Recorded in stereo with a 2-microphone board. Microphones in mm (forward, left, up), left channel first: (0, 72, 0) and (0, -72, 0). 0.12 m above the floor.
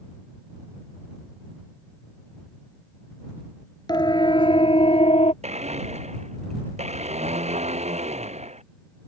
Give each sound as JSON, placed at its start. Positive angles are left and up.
{"t": 3.9, "sound": "a siren", "side_deg": 30}
{"t": 5.4, "sound": "a blender", "side_deg": -50}